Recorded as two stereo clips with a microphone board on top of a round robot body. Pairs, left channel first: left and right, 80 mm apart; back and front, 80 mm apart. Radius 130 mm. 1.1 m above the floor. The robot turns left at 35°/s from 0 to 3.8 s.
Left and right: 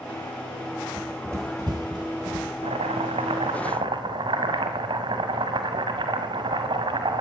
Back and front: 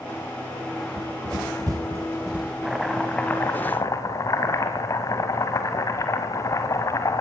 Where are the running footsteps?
15° right, 1.3 m; by 2.5 s 80° right, 1.9 m.